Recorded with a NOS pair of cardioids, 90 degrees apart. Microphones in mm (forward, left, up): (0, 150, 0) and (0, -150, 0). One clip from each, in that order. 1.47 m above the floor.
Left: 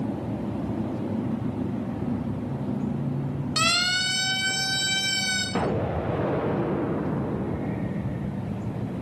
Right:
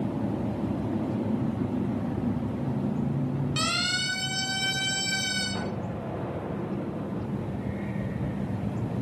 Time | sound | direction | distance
3.6 | a siren | 40° left | 5.5 m
5.5 | an explosion | 50° left | 0.9 m